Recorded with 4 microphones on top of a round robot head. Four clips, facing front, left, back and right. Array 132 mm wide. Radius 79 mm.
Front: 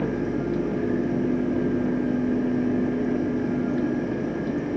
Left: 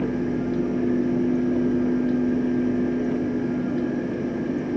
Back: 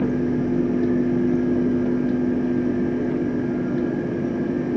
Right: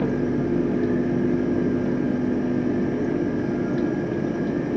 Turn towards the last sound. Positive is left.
No sound to turn to.